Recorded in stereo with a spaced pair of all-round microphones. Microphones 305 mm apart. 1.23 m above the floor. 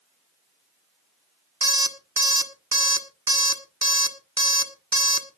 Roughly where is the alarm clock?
Right.